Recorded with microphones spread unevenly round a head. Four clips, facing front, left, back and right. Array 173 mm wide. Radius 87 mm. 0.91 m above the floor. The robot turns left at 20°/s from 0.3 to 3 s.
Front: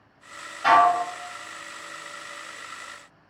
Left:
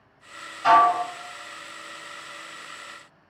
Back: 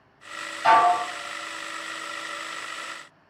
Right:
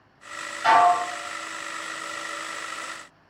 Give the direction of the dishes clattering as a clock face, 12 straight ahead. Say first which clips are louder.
Even, even; 1 o'clock.